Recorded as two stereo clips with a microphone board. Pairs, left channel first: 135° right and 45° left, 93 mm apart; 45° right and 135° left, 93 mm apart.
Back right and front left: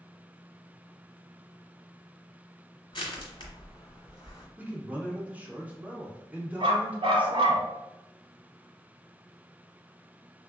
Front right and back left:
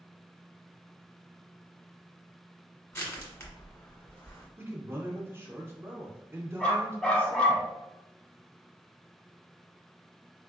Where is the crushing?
110° right, 1.4 m.